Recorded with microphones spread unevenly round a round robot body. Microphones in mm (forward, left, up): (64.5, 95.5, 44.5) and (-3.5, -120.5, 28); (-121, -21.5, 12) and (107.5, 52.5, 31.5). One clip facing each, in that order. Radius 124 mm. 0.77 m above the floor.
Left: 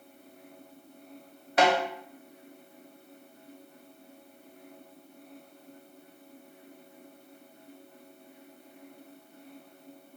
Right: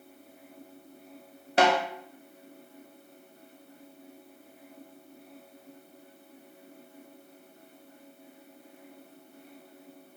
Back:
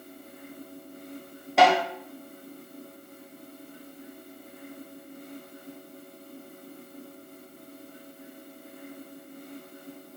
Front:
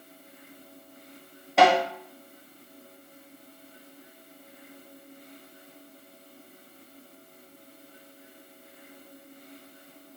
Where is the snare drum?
80° right, 0.9 m.